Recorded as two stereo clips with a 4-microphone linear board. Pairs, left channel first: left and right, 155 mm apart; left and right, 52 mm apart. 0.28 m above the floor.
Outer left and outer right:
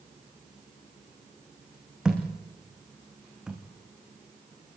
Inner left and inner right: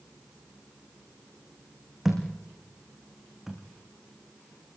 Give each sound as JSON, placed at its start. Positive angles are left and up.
{"t": 2.0, "sound": "a thud", "side_deg": -5, "distance_m": 4.0}